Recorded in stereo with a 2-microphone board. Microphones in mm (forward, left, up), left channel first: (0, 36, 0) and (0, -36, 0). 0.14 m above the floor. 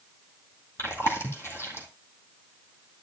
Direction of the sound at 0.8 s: 35° left (ahead or behind).